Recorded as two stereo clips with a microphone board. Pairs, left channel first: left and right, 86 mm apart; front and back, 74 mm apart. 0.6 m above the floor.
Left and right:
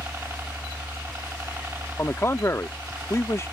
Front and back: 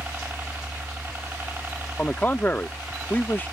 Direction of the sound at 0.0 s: 135° right.